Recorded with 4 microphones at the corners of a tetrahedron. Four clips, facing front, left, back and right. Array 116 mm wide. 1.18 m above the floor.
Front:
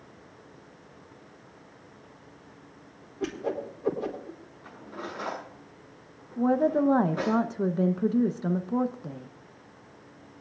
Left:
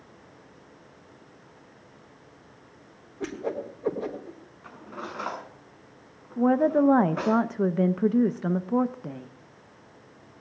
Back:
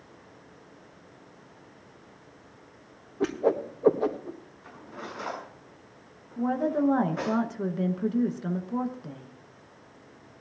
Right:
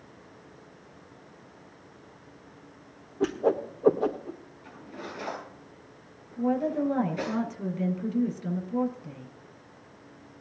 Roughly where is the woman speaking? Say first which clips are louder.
Left 6 dB, front 3 dB; left.